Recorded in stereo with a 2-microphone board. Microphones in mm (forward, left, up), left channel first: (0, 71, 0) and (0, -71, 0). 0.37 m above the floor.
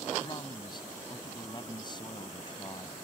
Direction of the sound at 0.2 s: 35° left (ahead or behind).